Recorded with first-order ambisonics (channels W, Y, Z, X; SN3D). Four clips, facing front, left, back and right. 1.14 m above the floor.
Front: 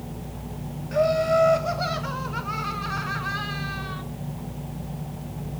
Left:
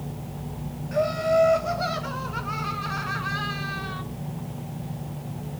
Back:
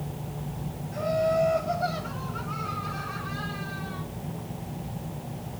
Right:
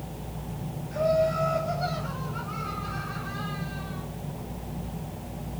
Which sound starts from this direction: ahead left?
Laughter, at 0.9 s.